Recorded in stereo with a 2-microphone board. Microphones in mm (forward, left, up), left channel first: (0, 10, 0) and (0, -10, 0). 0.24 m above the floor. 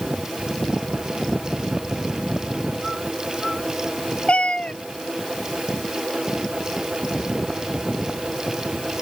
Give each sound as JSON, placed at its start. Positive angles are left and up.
{"t": 4.3, "sound": "a cat meowing", "side_deg": 65}